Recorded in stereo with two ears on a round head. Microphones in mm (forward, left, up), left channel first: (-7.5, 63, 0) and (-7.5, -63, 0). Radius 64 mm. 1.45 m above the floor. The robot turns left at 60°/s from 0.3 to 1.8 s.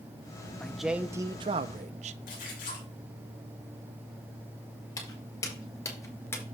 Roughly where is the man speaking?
Ahead.